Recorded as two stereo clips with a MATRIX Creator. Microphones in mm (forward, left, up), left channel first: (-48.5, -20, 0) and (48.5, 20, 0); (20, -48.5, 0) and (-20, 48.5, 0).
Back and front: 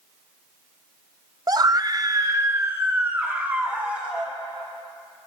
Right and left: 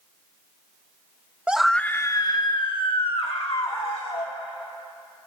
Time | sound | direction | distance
1.5 | a scream | 40° left | 0.5 m